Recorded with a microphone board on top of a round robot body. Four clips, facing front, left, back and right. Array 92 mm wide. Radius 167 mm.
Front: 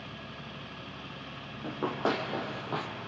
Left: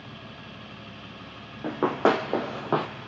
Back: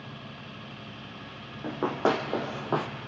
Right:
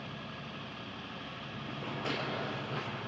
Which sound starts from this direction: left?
Running footsteps, at 1.6 s.